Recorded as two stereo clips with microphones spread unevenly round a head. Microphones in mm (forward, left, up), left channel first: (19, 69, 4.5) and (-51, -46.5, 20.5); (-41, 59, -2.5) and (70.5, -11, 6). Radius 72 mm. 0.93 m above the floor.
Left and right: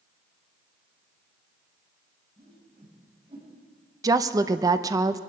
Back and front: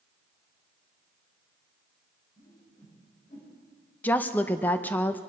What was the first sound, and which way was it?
A whoosh, 170° right.